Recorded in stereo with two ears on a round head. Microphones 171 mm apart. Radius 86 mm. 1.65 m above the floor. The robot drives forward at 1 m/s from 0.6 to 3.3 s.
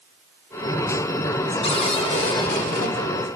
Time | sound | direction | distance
1.6 | a cupboard door | 30° left (ahead or behind) | 3 m